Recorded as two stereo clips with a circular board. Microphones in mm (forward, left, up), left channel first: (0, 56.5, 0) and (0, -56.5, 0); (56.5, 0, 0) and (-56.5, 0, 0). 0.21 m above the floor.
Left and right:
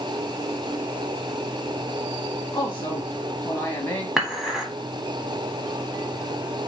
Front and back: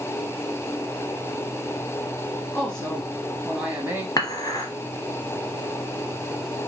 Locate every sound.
2.5 s a woman speaking: 55° left, 1.2 m; by 4.1 s 145° left, 1.2 m
4.2 s dishes clattering: 5° right, 1.1 m